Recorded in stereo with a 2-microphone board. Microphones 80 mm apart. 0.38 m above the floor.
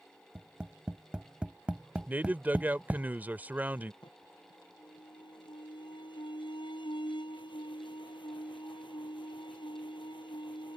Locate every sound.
0.3 s tapping: 15° right (ahead or behind)
2.1 s a man speaking: 25° right (ahead or behind)
4.0 s an alarm: 85° left